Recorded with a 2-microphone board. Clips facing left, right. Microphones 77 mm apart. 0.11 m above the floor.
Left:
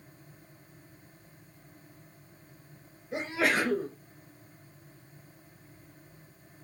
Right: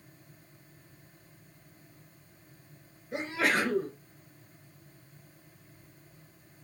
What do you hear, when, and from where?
3.1 s a sneeze: centre (ahead or behind), 1.3 m